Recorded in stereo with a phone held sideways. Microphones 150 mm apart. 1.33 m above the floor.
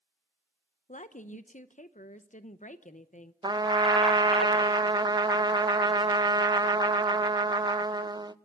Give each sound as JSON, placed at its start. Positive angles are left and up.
{"t": 0.9, "sound": "a woman speaking", "side_deg": 55, "distance_m": 0.7}
{"t": 3.4, "sound": "a trumpet", "side_deg": -25, "distance_m": 0.5}